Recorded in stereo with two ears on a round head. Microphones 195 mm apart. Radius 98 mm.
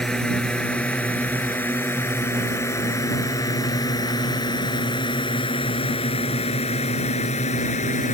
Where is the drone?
5° left (ahead or behind); by 8.1 s 35° left (ahead or behind).